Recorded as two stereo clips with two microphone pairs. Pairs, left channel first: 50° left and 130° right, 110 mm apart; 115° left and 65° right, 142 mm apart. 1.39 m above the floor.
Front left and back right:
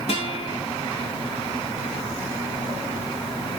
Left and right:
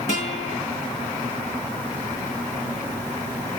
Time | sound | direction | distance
0.1 | a guitar | 80° left | 5 m